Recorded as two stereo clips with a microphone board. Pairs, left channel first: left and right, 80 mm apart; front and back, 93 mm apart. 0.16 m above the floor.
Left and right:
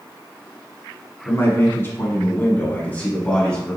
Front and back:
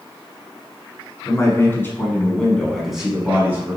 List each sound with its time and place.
1.2 s a man speaking: 40° left, 1.5 m; by 3.8 s 160° left, 1.2 m